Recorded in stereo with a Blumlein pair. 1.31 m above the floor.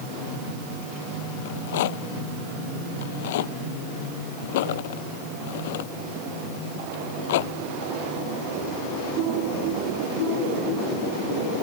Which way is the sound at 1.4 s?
55° left.